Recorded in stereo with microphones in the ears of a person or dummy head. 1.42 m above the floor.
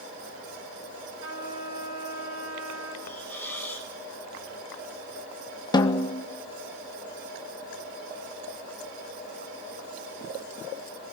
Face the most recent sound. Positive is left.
turn(degrees=20)  # may be behind; listen again after turning